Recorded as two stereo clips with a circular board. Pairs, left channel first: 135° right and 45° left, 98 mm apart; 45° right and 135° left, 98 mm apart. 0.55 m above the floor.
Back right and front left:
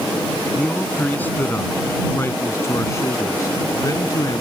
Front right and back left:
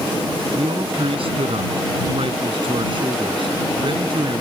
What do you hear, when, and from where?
0.6 s a man speaking: 150° left; by 4.4 s 175° left